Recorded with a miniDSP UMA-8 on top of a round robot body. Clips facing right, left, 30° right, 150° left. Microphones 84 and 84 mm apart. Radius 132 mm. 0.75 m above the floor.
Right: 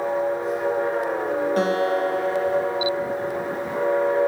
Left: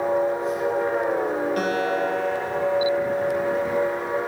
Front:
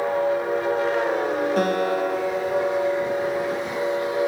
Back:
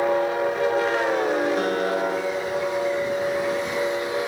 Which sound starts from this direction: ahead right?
A guitar, at 1.6 s.